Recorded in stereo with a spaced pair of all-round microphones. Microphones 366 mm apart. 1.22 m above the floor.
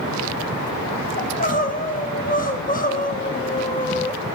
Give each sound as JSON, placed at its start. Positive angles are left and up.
{"t": 1.2, "sound": "crying", "side_deg": 25, "distance_m": 0.8}